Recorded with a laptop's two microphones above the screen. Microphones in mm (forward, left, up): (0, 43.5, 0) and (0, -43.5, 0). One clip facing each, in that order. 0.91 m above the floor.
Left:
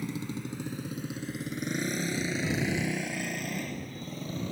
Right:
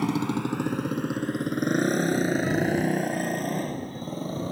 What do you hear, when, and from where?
0.0 s a motorcycle: 80° right; by 4.5 s 35° right (ahead or behind)